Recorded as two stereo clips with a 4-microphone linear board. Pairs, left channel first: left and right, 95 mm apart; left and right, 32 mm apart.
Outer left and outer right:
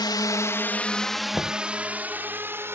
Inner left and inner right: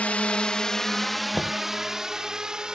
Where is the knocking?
10° left (ahead or behind).